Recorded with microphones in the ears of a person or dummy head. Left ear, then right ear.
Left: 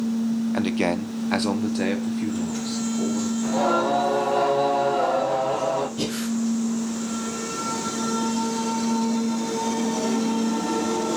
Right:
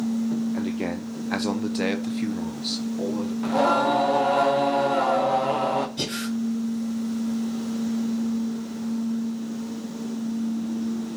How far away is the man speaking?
About 0.6 m.